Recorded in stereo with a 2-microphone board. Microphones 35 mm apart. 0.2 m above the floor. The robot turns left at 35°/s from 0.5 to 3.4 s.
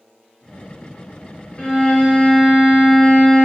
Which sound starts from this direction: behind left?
A violin, at 1.6 s.